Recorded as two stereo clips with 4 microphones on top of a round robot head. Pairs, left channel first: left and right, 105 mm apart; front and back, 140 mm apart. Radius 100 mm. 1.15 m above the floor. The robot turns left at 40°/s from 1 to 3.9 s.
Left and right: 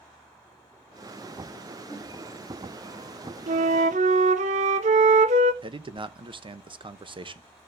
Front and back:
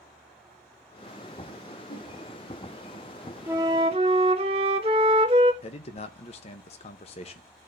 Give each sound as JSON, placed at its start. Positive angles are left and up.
{"t": 1.9, "sound": "a whoosh", "azimuth_deg": 20, "distance_m": 9.5}
{"t": 3.5, "sound": "a flute", "azimuth_deg": -100, "distance_m": 0.6}
{"t": 5.6, "sound": "a man speaking", "azimuth_deg": -50, "distance_m": 1.0}